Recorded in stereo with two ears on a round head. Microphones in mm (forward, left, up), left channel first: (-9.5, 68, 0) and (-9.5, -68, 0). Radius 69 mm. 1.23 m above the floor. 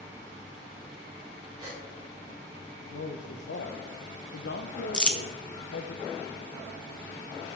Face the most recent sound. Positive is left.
turn(degrees=5)  # may be behind; listen again after turning